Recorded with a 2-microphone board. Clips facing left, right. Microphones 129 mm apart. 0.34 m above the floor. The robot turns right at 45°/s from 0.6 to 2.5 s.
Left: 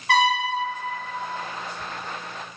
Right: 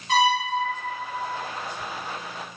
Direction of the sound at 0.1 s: 70° left (ahead or behind).